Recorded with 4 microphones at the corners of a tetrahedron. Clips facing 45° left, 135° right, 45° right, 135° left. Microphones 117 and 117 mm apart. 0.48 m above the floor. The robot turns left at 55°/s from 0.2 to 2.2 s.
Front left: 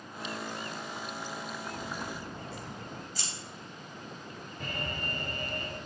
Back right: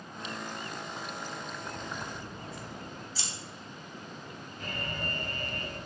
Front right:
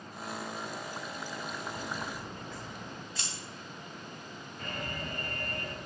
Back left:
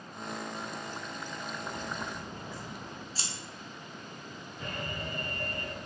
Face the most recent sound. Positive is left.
turn(degrees=60)